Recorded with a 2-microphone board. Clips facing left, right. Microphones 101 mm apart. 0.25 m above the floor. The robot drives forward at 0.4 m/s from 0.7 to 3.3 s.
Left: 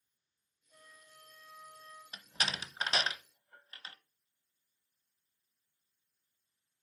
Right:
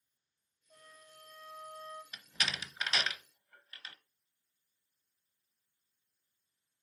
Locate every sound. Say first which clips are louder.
0.7 s a flute: right 2 dB; 55° right (ahead or behind), 3 m; by 2.0 s 65° right (ahead or behind), 2.5 m
2.1 s a door slam: left 3 dB; 30° left (ahead or behind), 0.7 m